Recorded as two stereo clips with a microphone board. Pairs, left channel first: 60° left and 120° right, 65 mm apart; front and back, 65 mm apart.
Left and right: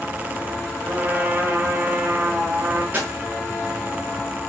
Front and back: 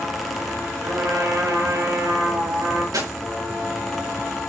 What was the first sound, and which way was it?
A trumpet, 175° right.